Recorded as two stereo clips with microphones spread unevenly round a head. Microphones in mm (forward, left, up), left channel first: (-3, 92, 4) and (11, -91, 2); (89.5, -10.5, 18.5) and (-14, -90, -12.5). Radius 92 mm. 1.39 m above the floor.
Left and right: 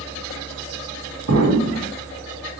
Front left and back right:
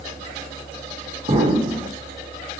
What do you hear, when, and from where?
1.3 s an explosion: 105° right, 3 m